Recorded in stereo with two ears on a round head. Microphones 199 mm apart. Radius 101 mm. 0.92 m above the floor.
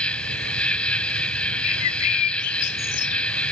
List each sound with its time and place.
0.0 s an insect: 5° left (ahead or behind)
1.6 s a bird: 80° left